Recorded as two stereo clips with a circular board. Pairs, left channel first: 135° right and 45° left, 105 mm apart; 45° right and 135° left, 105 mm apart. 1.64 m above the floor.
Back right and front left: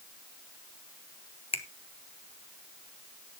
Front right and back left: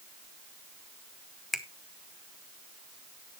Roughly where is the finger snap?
Behind right.